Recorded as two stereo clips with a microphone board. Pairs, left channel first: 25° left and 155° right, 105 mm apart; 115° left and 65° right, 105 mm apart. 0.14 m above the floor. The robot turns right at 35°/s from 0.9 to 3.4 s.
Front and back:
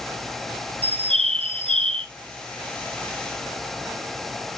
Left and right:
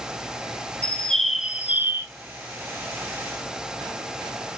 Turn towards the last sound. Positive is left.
turn(degrees=-80)